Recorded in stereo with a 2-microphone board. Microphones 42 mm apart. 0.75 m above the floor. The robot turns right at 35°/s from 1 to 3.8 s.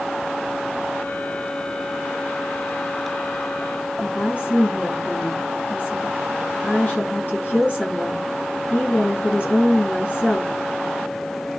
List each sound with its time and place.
4.0 s a woman speaking: 45° left (ahead or behind), 8 m